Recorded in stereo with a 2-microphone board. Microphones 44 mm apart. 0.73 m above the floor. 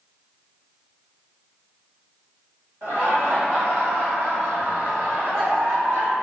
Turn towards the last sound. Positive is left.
turn(degrees=-60)  # may be behind; listen again after turning